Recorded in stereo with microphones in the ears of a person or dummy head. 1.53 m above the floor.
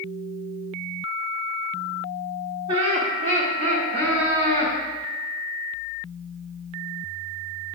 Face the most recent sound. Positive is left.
turn(degrees=-45)  # may be behind; listen again after turning